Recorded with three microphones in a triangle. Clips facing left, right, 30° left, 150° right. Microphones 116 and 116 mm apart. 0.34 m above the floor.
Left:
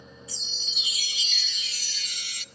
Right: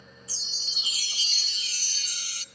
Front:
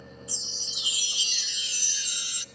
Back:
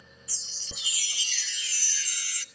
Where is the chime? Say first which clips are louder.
Left 3 dB, front 5 dB; 40° right, 1.0 m.